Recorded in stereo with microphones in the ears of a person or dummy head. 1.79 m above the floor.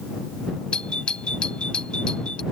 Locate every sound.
0.7 s a doorbell: centre (ahead or behind)